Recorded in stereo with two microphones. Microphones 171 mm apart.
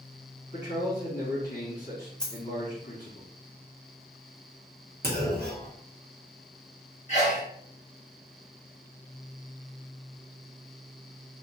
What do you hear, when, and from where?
0.5 s a man speaking: 55° left (ahead or behind), 2.0 m
2.2 s a dropped coin: 5° left (ahead or behind), 0.7 m
5.0 s a clunk: 75° right (ahead or behind), 0.8 m
7.1 s a sneeze: 45° left (ahead or behind), 1.6 m